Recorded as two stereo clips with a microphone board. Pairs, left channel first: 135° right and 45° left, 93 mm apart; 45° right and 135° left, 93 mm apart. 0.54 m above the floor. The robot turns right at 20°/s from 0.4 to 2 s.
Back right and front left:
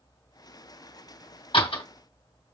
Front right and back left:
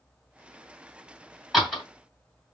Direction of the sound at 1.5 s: 135° right.